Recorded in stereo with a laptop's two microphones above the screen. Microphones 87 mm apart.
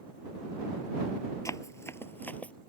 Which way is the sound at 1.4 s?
40° left (ahead or behind).